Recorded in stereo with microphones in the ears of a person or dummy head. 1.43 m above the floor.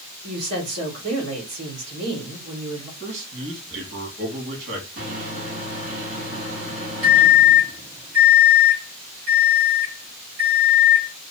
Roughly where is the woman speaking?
Right.